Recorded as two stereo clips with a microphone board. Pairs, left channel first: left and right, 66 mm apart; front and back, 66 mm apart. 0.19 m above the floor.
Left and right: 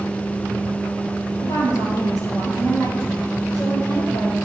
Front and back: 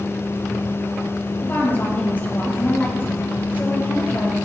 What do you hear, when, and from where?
1.4 s a woman speaking: 60° left, 3.5 m